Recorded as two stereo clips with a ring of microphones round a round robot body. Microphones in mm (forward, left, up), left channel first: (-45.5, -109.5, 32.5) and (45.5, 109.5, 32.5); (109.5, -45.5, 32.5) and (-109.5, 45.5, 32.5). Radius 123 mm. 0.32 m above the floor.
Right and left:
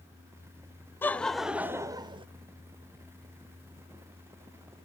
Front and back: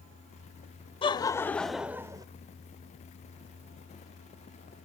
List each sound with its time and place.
1.0 s laughter: 45° right, 0.9 m; by 2.3 s 105° left, 0.9 m